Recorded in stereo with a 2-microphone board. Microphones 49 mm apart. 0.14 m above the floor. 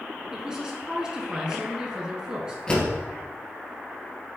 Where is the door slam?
20° left (ahead or behind), 2 m.